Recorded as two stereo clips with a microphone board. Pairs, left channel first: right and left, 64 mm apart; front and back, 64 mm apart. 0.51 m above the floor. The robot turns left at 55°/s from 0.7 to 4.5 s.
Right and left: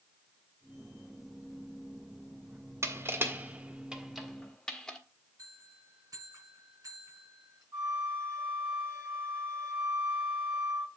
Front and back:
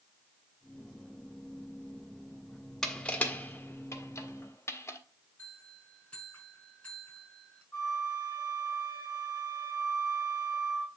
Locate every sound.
2.8 s crushing: 80° left, 1.5 m; by 5.0 s 15° right, 1.5 m
5.4 s a bell: 65° left, 5.5 m
7.7 s a flute: 45° left, 6.5 m